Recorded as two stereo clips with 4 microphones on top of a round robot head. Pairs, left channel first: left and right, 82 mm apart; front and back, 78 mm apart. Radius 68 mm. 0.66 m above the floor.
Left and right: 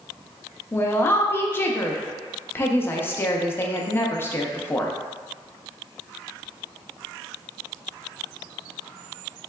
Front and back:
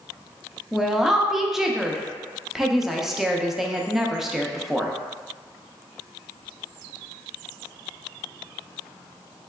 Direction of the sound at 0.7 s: 100° left.